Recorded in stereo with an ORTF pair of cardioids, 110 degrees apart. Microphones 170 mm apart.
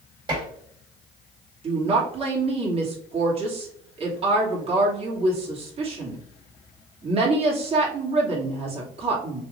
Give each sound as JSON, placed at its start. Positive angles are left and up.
{"t": 0.3, "sound": "dishes clattering", "azimuth_deg": -30, "distance_m": 3.0}
{"t": 1.6, "sound": "a woman speaking", "azimuth_deg": -35, "distance_m": 2.5}